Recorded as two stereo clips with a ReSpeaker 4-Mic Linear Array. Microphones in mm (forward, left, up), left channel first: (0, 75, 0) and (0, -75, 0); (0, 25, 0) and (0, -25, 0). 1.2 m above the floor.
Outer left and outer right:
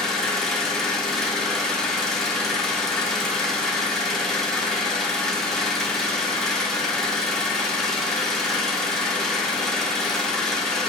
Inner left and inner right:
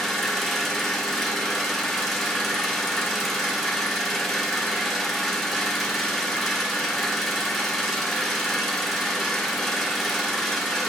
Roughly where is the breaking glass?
I don't hear breaking glass.